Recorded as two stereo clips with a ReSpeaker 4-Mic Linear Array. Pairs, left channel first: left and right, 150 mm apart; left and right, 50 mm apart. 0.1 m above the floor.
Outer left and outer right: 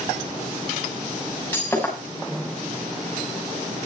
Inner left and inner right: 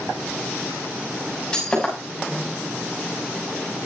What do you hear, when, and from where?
1.5 s breaking glass: 15° left (ahead or behind), 6.5 m